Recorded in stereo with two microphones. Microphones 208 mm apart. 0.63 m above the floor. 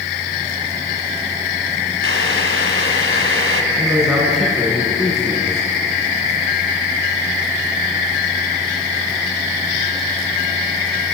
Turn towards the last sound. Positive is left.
turn(degrees=-10)  # may be behind; listen again after turning